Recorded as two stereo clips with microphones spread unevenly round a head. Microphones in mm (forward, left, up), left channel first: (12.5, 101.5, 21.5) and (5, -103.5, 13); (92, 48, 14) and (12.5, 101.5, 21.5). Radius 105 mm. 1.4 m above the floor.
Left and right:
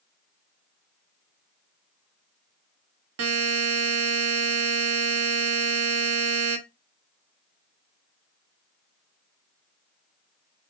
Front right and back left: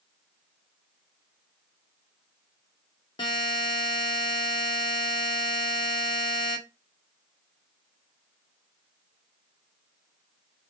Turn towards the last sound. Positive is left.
turn(degrees=-95)